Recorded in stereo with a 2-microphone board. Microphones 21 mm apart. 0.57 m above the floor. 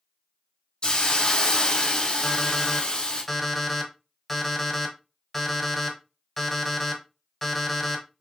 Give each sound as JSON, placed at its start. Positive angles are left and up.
{"t": 0.8, "sound": "a hiss", "side_deg": 45, "distance_m": 1.4}
{"t": 2.2, "sound": "an alarm clock", "side_deg": 5, "distance_m": 1.5}